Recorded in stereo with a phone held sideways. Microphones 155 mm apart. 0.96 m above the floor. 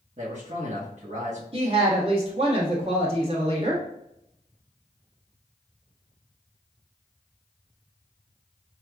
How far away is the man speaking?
About 1.0 m.